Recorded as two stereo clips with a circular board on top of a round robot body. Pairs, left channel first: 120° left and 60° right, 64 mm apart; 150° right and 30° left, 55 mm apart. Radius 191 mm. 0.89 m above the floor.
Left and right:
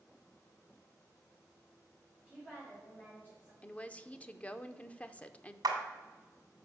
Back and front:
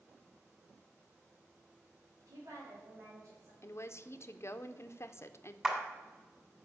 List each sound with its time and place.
2.2 s a woman speaking: 50° left, 4.5 m; by 3.5 s 65° left, 3 m
3.6 s a woman speaking: 175° right, 0.8 m
5.6 s a clap: 50° right, 1.7 m